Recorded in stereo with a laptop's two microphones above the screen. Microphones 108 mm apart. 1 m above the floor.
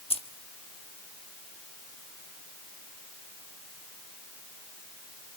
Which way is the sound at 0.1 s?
55° left (ahead or behind).